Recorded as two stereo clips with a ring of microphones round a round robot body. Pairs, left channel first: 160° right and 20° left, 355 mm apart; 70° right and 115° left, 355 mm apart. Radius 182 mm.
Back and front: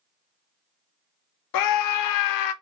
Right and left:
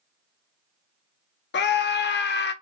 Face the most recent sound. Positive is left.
turn(degrees=-130)